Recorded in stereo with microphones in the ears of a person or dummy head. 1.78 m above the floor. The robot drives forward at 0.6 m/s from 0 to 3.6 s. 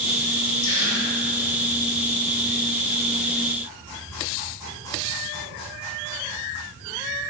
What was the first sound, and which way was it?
A gasp, 70° left (ahead or behind).